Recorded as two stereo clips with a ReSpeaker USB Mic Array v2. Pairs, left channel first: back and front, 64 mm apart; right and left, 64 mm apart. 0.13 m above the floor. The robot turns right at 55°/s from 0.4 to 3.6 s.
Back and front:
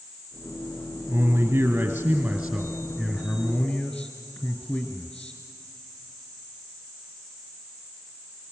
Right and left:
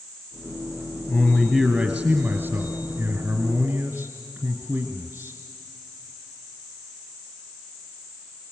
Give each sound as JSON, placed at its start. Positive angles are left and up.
{"t": 1.1, "sound": "a man speaking", "azimuth_deg": -5, "distance_m": 1.7}